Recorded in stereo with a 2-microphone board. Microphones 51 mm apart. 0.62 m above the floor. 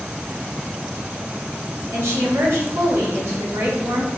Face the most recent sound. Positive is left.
turn(degrees=-65)  # may be behind; listen again after turning